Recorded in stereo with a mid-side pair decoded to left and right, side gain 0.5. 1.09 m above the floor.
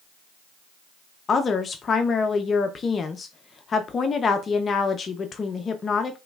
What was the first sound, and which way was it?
A woman speaking, 40° left.